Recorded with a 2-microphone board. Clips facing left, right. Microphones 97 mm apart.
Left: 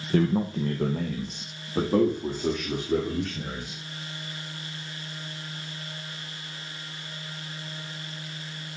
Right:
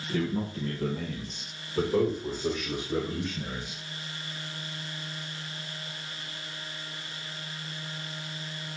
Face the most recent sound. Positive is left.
turn(degrees=80)